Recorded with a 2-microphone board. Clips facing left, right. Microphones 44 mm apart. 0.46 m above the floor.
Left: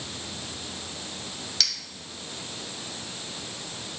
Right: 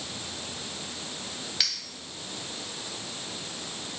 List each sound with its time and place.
1.6 s a clink: 15° right (ahead or behind), 1.7 m